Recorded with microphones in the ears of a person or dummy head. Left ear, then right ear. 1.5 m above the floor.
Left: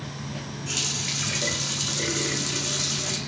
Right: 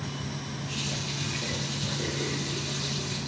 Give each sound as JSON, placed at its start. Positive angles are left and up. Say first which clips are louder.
{"t": 0.7, "sound": "a running tap", "louder": "left 6 dB", "side_deg": 60, "distance_m": 2.5}